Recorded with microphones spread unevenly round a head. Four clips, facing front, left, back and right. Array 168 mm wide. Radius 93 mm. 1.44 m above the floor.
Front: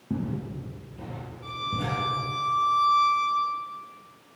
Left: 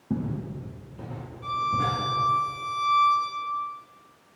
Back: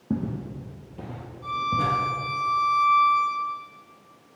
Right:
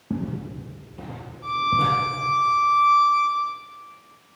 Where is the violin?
150° left, 3.5 m.